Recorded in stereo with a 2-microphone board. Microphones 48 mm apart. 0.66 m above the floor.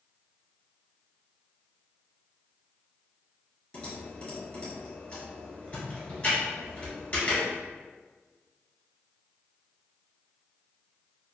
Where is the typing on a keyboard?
20° left (ahead or behind), 1.5 m.